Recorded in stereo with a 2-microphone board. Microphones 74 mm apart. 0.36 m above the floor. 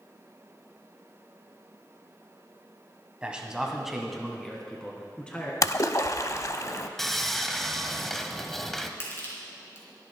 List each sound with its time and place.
3.2 s a man speaking: 15° right (ahead or behind), 1.9 m; by 5.5 s 15° left (ahead or behind), 3 m
5.6 s a splash: 45° left (ahead or behind), 0.5 m
7.0 s sawing: 5° left (ahead or behind), 0.8 m
9.0 s crushing: 35° left (ahead or behind), 3.5 m